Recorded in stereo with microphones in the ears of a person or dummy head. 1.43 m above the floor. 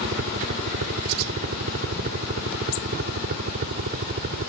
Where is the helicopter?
50° right (ahead or behind); by 4.5 s 45° right (ahead or behind).